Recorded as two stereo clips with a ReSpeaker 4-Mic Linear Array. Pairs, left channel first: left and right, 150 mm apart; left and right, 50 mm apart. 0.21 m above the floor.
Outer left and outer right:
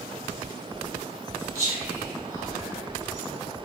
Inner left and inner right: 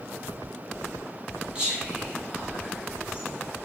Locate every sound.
1.6 s whispering: 20° right (ahead or behind), 1.6 m